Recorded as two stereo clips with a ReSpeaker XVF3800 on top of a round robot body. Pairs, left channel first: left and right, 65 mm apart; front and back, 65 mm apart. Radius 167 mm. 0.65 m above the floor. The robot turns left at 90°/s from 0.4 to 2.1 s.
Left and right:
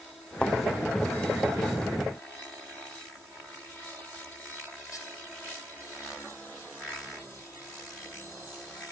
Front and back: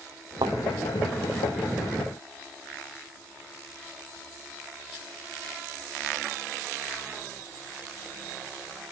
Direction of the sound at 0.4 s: 170° left.